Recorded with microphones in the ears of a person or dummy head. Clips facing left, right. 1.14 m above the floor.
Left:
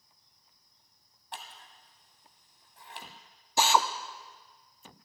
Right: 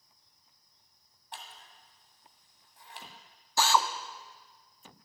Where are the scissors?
60° left (ahead or behind), 2.5 m.